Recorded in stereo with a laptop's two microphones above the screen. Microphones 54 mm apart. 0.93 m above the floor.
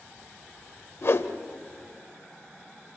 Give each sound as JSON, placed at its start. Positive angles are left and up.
{"t": 1.0, "sound": "a whoosh", "side_deg": 60, "distance_m": 1.0}